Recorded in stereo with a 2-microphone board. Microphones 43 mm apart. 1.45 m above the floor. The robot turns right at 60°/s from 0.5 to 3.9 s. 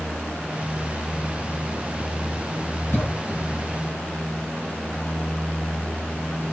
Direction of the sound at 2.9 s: 60° left (ahead or behind).